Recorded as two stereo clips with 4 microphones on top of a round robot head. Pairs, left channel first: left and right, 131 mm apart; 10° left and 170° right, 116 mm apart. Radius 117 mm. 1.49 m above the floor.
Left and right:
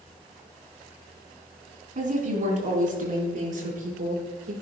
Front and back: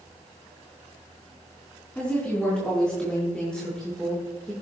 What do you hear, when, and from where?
1.9 s a woman speaking: 70° right, 3.5 m; by 4.5 s 75° right, 6 m